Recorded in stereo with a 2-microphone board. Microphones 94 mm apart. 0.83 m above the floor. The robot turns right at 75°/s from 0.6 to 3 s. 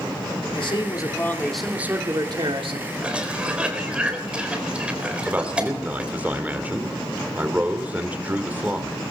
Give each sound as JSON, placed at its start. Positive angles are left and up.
{"t": 0.6, "sound": "a man speaking", "azimuth_deg": 105, "distance_m": 2.5}
{"t": 3.0, "sound": "a cough", "side_deg": -10, "distance_m": 3.5}
{"t": 5.3, "sound": "a man speaking", "side_deg": -20, "distance_m": 2.0}